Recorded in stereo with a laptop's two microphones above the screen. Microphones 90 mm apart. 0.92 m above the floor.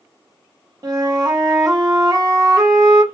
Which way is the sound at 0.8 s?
45° right (ahead or behind).